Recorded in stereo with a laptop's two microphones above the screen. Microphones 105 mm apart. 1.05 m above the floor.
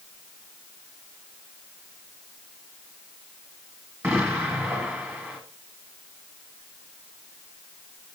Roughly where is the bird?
No bird in this recording.